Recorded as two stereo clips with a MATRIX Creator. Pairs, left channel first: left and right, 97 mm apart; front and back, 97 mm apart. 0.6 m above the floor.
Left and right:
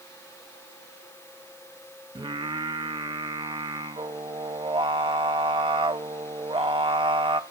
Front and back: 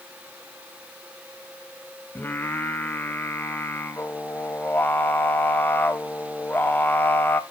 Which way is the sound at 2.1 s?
70° right.